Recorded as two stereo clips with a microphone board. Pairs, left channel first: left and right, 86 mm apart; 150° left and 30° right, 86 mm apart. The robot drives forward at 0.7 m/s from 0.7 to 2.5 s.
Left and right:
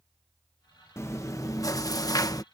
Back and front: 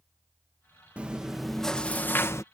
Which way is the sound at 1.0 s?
45° left.